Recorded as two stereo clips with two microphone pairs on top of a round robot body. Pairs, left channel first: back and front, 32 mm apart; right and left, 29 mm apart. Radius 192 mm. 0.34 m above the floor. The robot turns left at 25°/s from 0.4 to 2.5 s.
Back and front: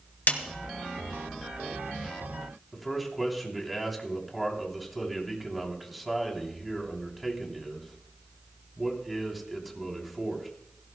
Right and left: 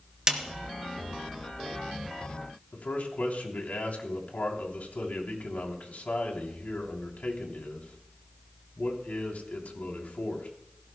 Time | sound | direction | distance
0.3 | a snare drum | 160° left | 2 m
2.7 | a man speaking | 95° right | 3.5 m